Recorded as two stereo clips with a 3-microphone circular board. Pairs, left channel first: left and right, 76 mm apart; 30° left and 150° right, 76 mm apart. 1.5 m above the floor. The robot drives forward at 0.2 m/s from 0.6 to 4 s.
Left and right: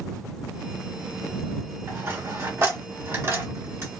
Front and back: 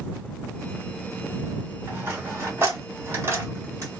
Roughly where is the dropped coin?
Right.